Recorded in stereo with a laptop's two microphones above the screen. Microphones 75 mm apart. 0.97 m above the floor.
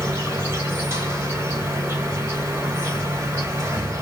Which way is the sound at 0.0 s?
45° right (ahead or behind).